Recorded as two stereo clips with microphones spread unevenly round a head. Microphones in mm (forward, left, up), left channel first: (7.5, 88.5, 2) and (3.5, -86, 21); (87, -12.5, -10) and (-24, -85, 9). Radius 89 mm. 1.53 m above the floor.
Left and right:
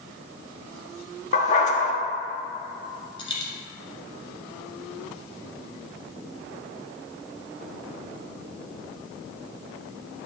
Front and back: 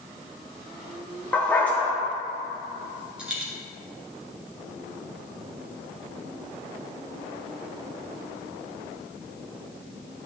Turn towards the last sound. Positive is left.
turn(degrees=145)